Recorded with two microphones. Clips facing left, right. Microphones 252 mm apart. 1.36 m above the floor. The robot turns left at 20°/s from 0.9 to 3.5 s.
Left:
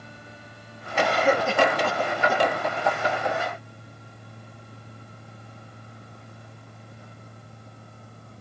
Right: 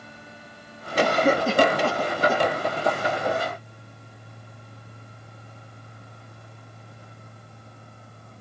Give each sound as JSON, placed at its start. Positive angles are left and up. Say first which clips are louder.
{"t": 1.0, "sound": "a cough", "louder": "right 2 dB", "side_deg": -50, "distance_m": 2.0}